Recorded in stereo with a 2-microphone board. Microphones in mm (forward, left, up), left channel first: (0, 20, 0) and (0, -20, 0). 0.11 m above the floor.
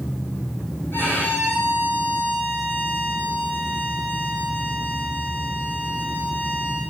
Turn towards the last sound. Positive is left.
turn(degrees=55)  # may be behind; listen again after turning